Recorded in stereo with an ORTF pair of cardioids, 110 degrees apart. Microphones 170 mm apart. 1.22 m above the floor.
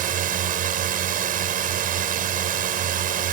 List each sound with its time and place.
0.0 s a drone: 55° right